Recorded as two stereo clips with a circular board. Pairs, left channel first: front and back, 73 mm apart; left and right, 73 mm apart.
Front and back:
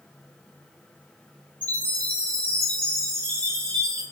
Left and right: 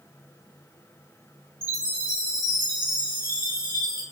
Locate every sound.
1.6 s a chime: 65° left, 3 m